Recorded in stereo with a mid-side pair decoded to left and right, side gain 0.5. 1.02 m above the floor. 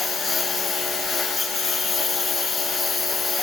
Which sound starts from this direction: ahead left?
A lawn mower, at 0.0 s.